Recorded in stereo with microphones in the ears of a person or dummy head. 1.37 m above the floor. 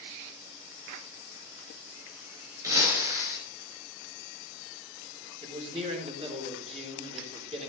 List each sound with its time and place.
2.6 s breaking glass: 15° right (ahead or behind), 3.5 m
5.4 s a man speaking: 35° right (ahead or behind), 3.5 m